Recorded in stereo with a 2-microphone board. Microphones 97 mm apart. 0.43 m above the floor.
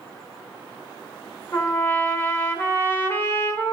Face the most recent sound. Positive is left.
turn(degrees=25)  # may be behind; listen again after turning